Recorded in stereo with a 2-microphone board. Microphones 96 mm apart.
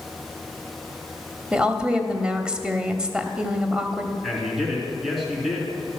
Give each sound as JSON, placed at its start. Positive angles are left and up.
{"t": 1.5, "sound": "a woman speaking", "side_deg": -10, "distance_m": 1.0}
{"t": 4.2, "sound": "a man speaking", "side_deg": 0, "distance_m": 4.0}